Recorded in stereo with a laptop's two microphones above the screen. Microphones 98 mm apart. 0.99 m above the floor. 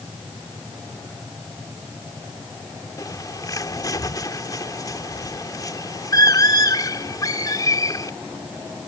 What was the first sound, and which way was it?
A bird, 40° left (ahead or behind).